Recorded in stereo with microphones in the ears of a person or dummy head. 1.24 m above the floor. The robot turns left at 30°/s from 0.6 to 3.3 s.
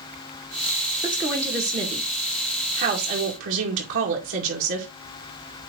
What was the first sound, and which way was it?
A woman speaking, 5° right.